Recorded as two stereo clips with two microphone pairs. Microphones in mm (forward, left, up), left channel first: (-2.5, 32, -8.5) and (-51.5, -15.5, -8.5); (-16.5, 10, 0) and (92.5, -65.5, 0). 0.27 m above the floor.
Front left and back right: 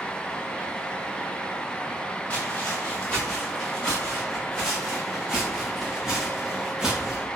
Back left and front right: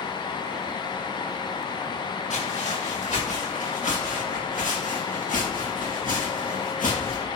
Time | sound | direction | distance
2.3 | footsteps | 115° left | 4 m